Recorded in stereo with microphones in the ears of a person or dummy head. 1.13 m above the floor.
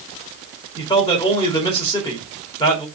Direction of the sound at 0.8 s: 20° left (ahead or behind).